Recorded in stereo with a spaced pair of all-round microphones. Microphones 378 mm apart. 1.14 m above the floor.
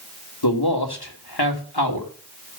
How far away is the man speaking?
About 2.5 m.